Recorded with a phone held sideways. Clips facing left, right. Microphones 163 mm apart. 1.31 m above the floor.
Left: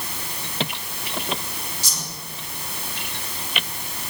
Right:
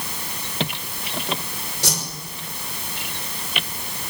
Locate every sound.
1.8 s a whoosh: 75° right (ahead or behind), 5.5 m